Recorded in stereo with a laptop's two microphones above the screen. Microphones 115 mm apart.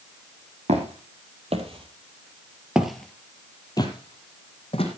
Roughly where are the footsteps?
Right.